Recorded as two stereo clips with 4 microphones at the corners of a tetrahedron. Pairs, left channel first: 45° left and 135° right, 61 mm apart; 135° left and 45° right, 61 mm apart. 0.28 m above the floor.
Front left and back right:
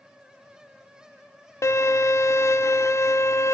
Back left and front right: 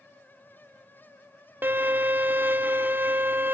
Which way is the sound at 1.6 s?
10° left.